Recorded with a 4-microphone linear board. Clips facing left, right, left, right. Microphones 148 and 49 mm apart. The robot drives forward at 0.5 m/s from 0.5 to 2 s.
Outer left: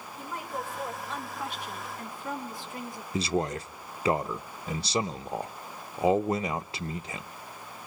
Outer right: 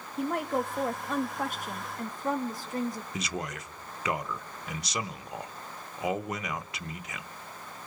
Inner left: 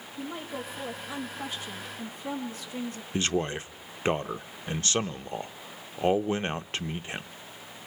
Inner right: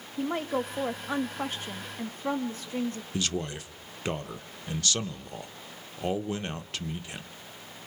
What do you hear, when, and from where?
0.2 s a woman speaking: 65° right (ahead or behind), 1.2 m; by 3.0 s 40° right (ahead or behind), 1.6 m
3.1 s a man speaking: 30° left (ahead or behind), 0.5 m